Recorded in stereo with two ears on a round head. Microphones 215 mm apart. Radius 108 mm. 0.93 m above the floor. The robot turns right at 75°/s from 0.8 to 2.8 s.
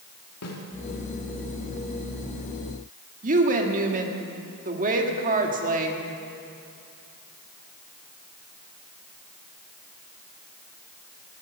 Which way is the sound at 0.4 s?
70° left (ahead or behind).